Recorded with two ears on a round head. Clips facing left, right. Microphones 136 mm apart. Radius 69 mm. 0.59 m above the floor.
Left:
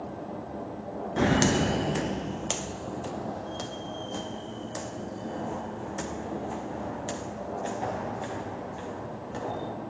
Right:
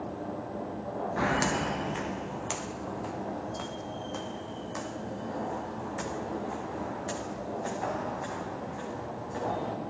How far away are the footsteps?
About 0.6 m.